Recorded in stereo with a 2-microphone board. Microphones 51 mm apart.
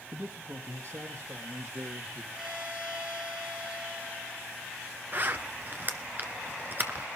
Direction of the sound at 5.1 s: 40° right (ahead or behind).